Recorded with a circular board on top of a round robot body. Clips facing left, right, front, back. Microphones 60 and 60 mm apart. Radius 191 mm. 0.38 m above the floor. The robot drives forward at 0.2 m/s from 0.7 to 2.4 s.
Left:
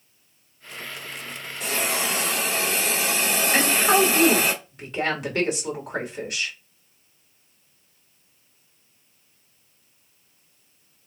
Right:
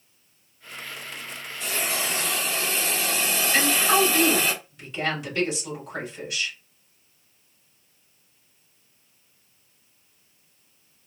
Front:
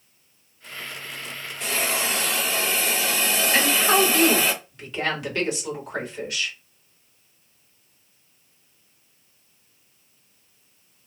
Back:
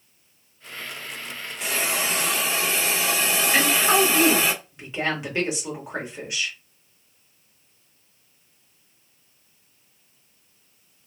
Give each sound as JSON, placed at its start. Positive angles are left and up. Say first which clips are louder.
{"t": 1.6, "sound": "a hiss", "louder": "left 3 dB, even", "azimuth_deg": 100, "distance_m": 2.0}
{"t": 3.5, "sound": "a woman speaking", "louder": "left 1 dB, even", "azimuth_deg": 110, "distance_m": 2.0}